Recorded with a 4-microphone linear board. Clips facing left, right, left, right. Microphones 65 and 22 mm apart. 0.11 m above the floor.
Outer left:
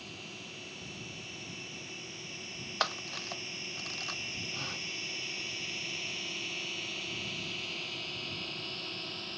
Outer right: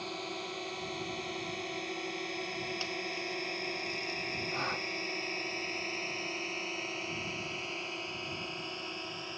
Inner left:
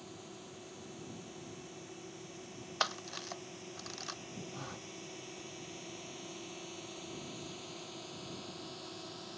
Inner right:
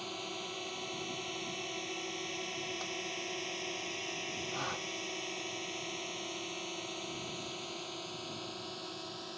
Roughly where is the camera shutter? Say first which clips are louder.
Outer left 2 dB, inner left 2 dB; left.